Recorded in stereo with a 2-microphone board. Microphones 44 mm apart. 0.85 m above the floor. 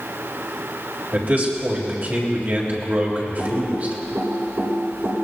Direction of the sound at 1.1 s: 45° right (ahead or behind).